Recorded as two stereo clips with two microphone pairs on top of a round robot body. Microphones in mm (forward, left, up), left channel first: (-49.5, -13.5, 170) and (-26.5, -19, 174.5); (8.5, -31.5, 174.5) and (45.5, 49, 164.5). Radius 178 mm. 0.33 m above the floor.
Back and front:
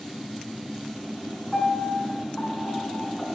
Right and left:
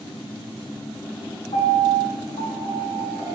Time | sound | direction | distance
1.5 | a piano | 120° right | 6 m